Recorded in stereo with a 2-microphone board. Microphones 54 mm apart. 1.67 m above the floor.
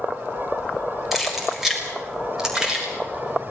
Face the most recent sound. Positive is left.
turn(degrees=-20)  # may be behind; listen again after turning